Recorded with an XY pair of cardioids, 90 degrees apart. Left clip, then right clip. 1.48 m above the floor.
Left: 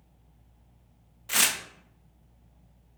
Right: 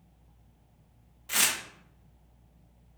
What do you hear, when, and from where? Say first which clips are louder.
1.3 s tearing paper: left 2 dB; 25° left, 0.6 m